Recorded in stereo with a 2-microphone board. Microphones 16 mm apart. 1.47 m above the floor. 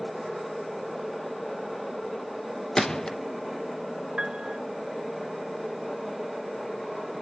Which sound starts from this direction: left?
A gunshot, at 2.8 s.